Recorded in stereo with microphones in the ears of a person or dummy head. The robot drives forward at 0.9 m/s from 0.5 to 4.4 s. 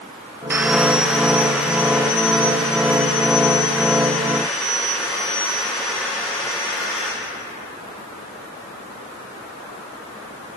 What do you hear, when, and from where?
0.5 s sawing: 10° right (ahead or behind), 0.5 m; by 7.1 s centre (ahead or behind), 4 m